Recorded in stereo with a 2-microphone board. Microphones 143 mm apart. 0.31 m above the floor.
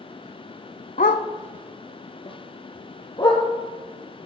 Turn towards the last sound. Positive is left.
turn(degrees=30)  # may be behind; listen again after turning